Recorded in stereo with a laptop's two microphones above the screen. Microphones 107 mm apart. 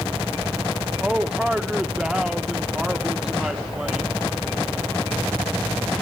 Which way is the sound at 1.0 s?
5° right (ahead or behind).